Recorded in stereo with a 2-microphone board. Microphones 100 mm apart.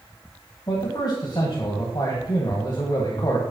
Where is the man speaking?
45° left (ahead or behind), 1.8 m.